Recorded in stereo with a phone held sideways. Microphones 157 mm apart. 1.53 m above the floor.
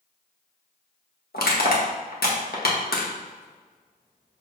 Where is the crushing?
80° left, 1.7 m.